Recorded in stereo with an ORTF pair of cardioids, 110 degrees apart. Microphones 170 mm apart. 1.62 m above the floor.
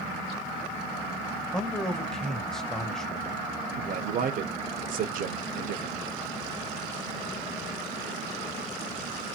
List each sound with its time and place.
1.5 s a man speaking: 5° left, 1.0 m
3.8 s a man speaking: 55° right, 1.2 m